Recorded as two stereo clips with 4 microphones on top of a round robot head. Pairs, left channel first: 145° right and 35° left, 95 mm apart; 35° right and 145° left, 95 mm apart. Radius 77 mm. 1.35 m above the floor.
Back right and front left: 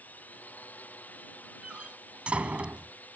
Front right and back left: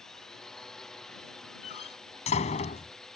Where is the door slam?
45° right.